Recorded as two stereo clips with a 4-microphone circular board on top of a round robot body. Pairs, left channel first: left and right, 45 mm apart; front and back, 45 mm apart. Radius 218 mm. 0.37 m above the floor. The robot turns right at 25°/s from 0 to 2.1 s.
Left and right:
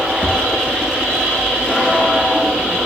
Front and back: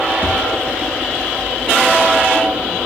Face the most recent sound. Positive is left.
turn(degrees=-95)